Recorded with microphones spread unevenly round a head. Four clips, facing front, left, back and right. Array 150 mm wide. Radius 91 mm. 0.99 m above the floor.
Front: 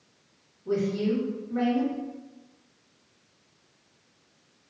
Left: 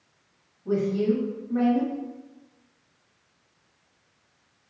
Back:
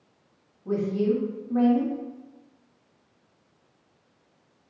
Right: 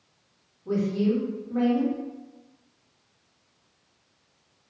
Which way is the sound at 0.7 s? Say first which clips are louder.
Left 1 dB, back 2 dB; 160° left.